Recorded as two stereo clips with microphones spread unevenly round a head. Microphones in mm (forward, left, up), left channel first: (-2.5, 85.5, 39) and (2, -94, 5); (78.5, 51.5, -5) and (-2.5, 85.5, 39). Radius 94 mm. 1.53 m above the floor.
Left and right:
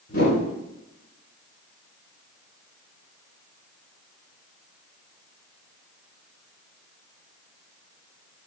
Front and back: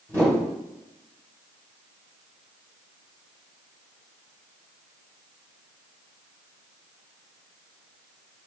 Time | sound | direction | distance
0.1 | a whoosh | 50° left | 7.5 m